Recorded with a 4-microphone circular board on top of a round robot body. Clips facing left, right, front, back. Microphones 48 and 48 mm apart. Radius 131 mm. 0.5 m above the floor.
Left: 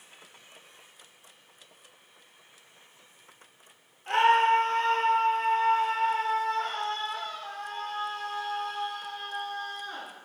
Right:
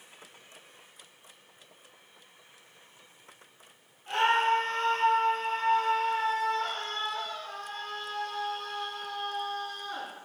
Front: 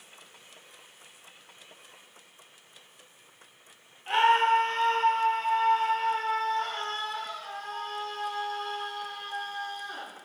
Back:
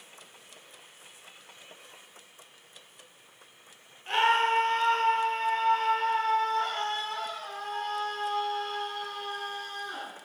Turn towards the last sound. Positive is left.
turn(degrees=130)